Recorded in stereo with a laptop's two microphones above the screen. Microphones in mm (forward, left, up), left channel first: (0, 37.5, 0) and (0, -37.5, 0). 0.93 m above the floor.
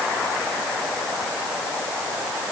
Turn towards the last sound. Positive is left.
No sound to turn to.